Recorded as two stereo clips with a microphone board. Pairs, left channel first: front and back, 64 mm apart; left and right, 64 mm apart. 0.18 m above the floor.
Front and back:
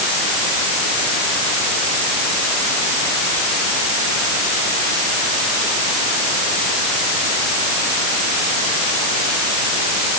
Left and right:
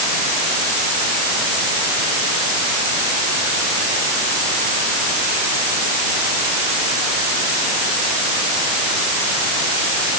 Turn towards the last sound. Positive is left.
No sound to turn to.